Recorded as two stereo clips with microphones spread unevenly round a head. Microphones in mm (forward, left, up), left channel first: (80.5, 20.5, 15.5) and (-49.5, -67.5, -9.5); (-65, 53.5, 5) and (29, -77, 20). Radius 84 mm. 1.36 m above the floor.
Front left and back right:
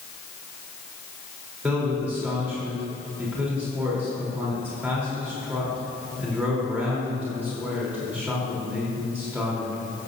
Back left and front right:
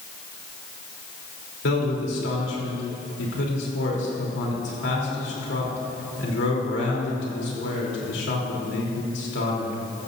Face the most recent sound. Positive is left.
turn(degrees=130)